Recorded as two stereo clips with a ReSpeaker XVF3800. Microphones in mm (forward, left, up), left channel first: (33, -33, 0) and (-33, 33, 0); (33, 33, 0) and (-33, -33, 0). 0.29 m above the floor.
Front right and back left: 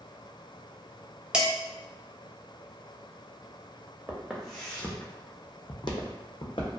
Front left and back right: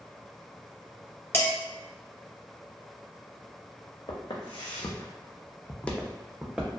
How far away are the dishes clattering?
About 0.6 m.